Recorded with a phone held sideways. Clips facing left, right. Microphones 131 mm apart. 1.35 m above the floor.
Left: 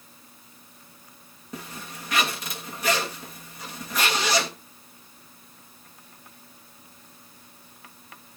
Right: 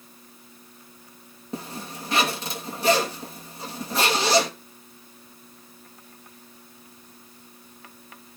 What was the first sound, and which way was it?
A zipper, 30° right (ahead or behind).